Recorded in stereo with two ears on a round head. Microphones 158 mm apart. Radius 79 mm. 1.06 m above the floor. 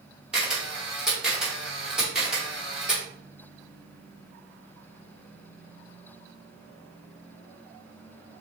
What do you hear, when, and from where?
0.3 s a camera shutter: 5° right (ahead or behind), 2 m